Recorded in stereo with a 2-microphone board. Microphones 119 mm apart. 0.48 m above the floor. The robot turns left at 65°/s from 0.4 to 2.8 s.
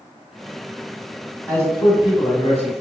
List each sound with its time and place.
1.5 s a man speaking: 165° left, 1.6 m; by 2.8 s 80° left, 1.6 m